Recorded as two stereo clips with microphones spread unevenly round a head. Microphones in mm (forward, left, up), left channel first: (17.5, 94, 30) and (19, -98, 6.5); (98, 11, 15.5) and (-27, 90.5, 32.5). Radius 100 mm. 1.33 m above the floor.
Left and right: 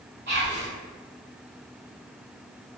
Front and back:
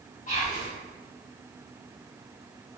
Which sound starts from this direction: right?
Whispering, at 0.3 s.